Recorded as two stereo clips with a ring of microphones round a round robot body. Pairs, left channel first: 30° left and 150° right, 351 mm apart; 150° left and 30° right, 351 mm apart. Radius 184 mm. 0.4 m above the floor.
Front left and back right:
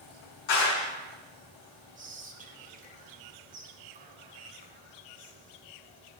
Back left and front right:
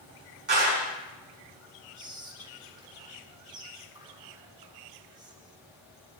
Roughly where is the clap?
Ahead left.